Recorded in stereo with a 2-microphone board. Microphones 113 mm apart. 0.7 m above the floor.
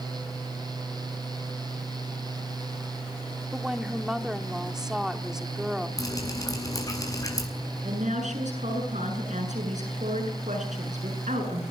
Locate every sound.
3.5 s a woman speaking: 5° right (ahead or behind), 2 m
6.0 s dripping: 30° left (ahead or behind), 7.5 m
7.8 s a woman speaking: 85° right, 8.5 m